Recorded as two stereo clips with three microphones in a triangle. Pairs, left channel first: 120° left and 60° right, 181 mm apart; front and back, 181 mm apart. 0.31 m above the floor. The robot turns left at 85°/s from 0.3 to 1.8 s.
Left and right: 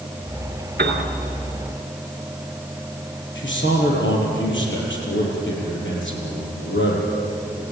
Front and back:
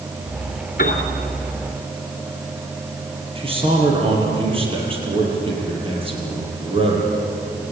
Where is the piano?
35° right, 3 m; by 1.0 s 60° right, 3 m.